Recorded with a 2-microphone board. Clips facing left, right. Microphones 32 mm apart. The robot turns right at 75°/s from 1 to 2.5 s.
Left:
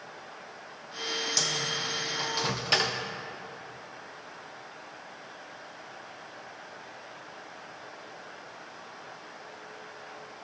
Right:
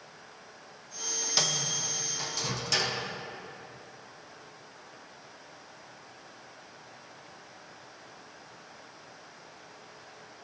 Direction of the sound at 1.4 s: 30° right (ahead or behind).